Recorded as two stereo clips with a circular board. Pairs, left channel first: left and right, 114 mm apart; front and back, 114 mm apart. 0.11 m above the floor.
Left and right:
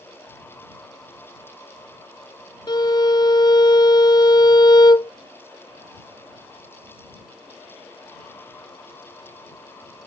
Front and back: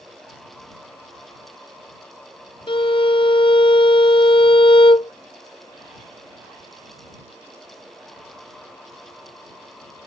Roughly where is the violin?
Ahead left.